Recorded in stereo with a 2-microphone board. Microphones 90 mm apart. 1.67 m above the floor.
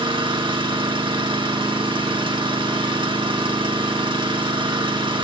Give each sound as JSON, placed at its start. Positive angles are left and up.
{"t": 0.0, "sound": "an engine running", "side_deg": -60, "distance_m": 2.0}